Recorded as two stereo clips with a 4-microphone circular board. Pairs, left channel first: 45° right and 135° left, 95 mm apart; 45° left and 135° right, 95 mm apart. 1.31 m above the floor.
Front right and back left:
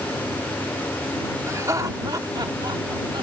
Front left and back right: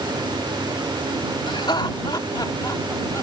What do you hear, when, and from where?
1.5 s laughter: 80° left; by 3.2 s 105° left